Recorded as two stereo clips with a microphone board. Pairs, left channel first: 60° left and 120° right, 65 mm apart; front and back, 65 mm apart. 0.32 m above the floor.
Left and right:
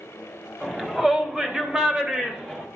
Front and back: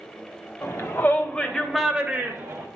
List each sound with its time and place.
0.6 s a shout: 40° right, 1.4 m; by 2.7 s 165° left, 1.1 m